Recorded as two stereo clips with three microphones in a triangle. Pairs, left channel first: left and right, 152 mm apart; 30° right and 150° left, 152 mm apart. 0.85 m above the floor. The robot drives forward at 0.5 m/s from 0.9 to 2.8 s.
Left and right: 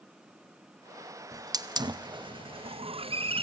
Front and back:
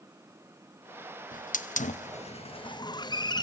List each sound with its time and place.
1.3 s a hiss: 25° right, 1.1 m; by 3.4 s 75° right, 0.7 m